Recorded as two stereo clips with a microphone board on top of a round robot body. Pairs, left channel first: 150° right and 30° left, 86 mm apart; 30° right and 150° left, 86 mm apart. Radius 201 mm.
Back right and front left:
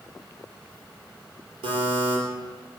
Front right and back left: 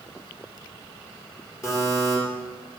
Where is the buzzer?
25° left, 7 m.